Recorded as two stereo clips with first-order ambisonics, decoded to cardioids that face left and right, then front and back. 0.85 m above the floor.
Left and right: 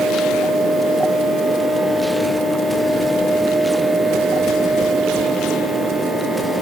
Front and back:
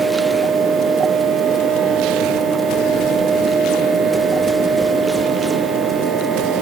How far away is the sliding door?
No sliding door in this recording.